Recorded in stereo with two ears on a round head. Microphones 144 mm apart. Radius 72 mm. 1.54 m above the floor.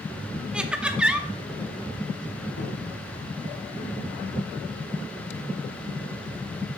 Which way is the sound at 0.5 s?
5° right (ahead or behind).